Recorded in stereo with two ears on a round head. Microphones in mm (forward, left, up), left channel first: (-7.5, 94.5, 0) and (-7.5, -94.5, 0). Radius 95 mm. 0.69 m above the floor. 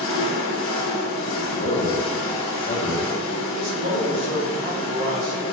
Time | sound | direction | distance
0.0 | an engine running | 60° left (ahead or behind) | 1.0 m
1.3 | a man speaking | 40° left (ahead or behind) | 0.8 m
3.5 | a man speaking | 55° right (ahead or behind) | 1.8 m